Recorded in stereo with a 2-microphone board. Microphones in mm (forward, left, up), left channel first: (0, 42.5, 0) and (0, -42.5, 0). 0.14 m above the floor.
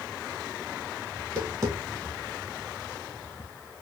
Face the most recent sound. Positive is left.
turn(degrees=-30)  # may be behind; listen again after turning